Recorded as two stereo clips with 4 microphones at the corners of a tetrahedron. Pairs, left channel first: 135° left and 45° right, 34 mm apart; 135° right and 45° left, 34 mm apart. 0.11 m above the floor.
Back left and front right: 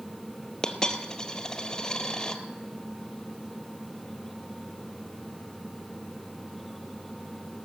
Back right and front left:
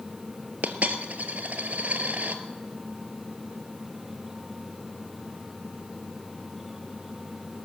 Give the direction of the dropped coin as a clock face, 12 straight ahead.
10 o'clock.